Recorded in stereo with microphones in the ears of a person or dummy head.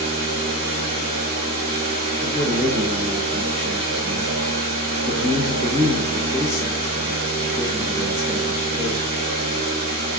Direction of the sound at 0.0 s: 50° right (ahead or behind).